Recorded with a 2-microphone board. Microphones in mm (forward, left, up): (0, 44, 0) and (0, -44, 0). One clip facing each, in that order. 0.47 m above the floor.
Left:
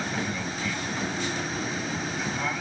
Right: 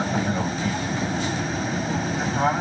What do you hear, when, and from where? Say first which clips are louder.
0.0 s an aircraft: right 6 dB; 40° right (ahead or behind); by 2.6 s 45° right (ahead or behind)